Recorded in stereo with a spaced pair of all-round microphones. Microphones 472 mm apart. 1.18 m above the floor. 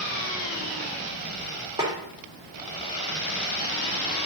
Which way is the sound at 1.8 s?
10° right (ahead or behind).